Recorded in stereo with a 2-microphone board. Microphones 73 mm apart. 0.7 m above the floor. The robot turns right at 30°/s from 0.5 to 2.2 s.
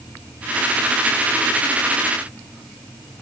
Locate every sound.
Only background noise.